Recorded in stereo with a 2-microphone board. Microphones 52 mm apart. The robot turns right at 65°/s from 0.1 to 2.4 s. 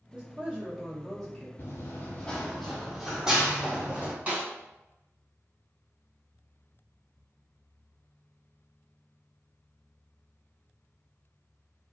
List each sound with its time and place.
0.1 s a woman speaking: 55° right, 0.9 m; by 1.5 s 35° left, 0.9 m
1.6 s running footsteps: 55° left (ahead or behind), 0.9 m; by 4.1 s 25° right (ahead or behind), 1.5 m
4.3 s a snare drum: 30° right (ahead or behind), 1.8 m